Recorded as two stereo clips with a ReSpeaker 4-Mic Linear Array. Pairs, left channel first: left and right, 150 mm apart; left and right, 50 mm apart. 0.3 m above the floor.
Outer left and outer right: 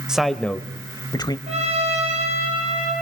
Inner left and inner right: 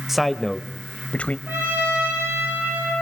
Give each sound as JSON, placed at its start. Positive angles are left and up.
{"t": 0.1, "sound": "a man speaking", "side_deg": -5, "distance_m": 0.9}
{"t": 1.5, "sound": "a trumpet", "side_deg": -45, "distance_m": 7.5}